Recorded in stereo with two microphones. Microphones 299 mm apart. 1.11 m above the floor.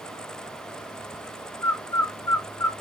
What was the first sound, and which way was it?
A bird, 80° left.